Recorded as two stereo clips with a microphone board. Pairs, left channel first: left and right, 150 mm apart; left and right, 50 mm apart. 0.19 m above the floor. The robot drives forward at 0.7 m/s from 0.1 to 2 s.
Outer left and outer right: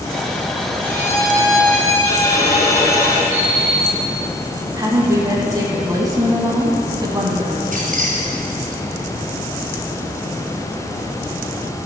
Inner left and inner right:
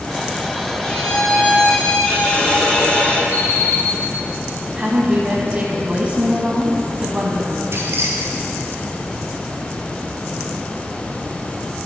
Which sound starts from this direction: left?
An alarm clock, at 3.3 s.